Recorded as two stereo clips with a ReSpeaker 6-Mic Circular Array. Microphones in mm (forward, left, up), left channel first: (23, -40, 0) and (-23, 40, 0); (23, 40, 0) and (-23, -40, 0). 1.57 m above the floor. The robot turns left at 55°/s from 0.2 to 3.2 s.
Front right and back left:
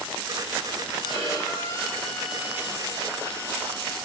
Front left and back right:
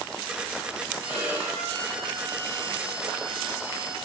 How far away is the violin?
About 5 m.